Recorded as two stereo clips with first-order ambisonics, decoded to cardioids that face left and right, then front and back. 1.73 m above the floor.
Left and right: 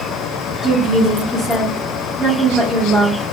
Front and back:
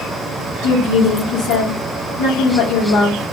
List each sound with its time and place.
0.6 s a woman speaking: 15° right, 1.1 m